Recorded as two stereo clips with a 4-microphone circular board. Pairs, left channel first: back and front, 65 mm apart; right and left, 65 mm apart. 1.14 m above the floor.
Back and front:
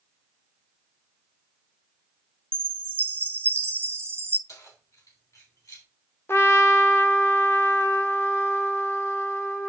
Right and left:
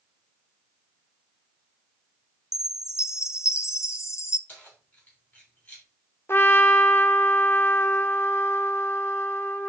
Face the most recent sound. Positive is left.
turn(degrees=-135)